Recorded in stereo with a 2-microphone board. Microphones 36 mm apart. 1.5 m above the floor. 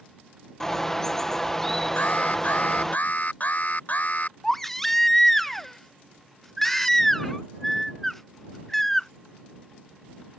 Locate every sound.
0.6 s a bird: 15° left (ahead or behind)
2.0 s an alarm: 45° left (ahead or behind)
4.4 s a baby crying: 5° left (ahead or behind)